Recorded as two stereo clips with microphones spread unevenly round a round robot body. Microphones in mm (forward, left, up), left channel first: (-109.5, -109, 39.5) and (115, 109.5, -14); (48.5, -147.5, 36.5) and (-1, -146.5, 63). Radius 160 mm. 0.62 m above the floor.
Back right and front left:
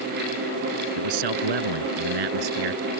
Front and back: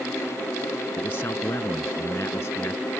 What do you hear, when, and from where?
1.0 s a man speaking: 60° left